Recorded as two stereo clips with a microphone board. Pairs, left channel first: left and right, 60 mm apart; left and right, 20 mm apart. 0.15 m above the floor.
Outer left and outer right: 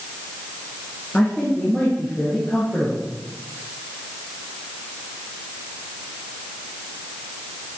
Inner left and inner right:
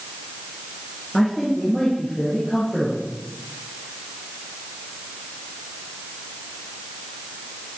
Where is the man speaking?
25° left (ahead or behind), 2.5 m; by 3.1 s 20° left (ahead or behind), 4 m.